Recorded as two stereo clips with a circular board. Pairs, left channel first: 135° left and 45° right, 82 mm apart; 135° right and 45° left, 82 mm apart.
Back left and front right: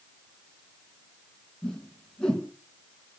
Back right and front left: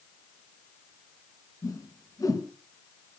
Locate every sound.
1.6 s a whoosh: 150° right, 2.0 m